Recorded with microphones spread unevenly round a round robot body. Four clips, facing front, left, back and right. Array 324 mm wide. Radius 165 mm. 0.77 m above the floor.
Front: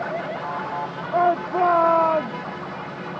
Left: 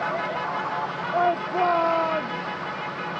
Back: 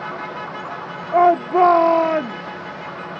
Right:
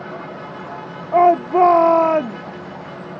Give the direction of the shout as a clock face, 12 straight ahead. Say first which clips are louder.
Right 11 dB, back 6 dB; 4 o'clock.